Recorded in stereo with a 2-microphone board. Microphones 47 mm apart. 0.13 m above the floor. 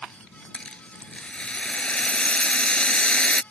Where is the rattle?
25° left (ahead or behind).